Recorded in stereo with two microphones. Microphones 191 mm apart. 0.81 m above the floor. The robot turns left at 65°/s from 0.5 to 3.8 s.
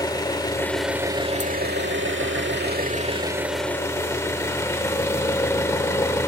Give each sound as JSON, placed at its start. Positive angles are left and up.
{"t": 0.0, "sound": "an engine running", "azimuth_deg": 20, "distance_m": 1.4}